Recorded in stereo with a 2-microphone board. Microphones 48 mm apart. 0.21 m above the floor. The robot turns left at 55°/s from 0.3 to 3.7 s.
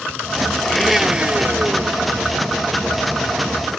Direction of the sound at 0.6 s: 5° left.